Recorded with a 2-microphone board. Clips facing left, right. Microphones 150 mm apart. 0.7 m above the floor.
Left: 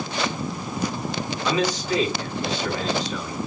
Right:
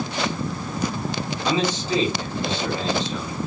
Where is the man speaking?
25° right (ahead or behind), 3 m.